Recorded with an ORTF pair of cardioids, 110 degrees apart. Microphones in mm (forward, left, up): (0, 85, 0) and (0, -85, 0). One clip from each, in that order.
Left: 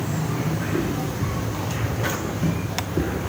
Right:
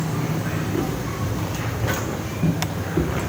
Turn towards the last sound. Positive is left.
turn(degrees=-15)